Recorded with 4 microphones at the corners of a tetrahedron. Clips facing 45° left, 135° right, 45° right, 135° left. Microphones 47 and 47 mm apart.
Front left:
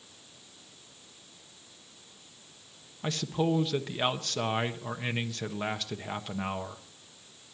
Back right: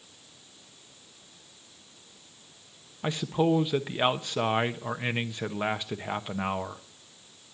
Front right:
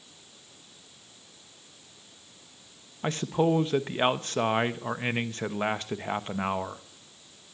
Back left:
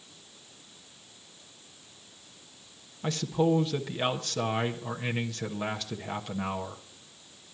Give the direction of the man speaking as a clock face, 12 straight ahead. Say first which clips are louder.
Back right 4 dB, front right 1 dB; 2 o'clock.